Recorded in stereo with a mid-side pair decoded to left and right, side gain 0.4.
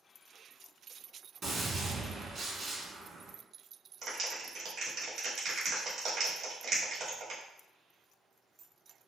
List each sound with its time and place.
1.4 s a gunshot: 50° right, 1.6 m
4.0 s a clap: 60° right, 1.8 m